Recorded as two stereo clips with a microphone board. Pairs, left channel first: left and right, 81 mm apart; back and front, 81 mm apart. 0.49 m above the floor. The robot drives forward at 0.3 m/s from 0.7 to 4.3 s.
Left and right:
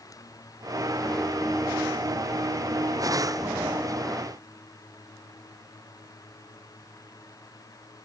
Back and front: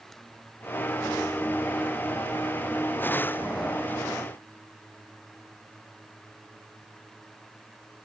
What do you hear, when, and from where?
Only background noise.